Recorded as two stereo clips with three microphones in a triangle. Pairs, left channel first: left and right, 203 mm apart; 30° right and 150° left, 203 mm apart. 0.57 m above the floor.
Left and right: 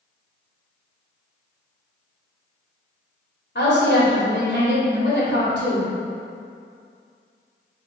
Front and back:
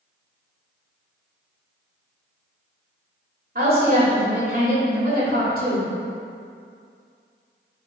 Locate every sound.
3.5 s a woman speaking: 115° left, 1.8 m